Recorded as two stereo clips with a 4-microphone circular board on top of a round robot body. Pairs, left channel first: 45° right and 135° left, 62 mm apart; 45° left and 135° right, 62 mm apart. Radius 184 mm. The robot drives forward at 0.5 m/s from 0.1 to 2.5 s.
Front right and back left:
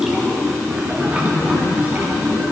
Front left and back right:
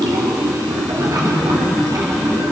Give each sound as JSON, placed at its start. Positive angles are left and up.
{"t": 0.0, "sound": "running water", "azimuth_deg": -145, "distance_m": 1.3}